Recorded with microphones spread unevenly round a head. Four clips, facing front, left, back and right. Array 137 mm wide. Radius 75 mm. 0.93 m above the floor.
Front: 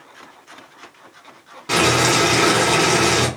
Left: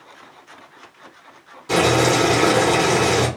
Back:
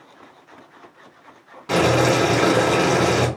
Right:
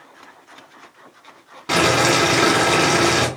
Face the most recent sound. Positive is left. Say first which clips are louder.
# left 1 dB, back 1 dB
turn(degrees=-65)